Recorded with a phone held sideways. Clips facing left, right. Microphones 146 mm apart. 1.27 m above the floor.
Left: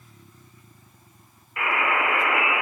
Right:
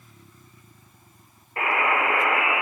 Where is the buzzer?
40° right (ahead or behind), 3 m.